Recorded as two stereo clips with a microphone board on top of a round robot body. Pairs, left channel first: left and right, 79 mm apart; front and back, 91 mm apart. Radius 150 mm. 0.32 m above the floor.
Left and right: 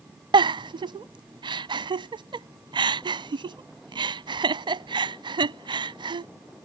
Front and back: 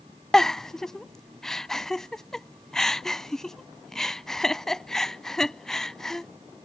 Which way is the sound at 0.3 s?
85° right.